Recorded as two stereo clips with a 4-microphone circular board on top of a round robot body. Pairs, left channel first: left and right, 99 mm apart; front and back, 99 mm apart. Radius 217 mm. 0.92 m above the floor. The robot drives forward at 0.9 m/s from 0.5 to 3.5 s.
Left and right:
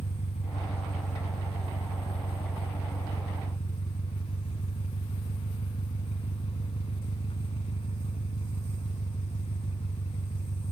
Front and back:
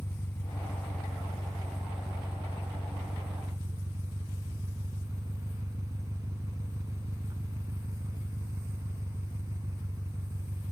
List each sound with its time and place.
0.0 s an engine running: 70° left; by 10.7 s 120° left